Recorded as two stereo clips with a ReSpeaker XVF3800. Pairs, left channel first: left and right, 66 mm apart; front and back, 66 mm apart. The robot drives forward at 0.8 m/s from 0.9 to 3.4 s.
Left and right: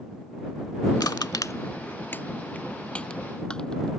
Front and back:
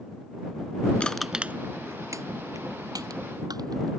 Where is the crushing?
70° left; by 3.9 s 165° left.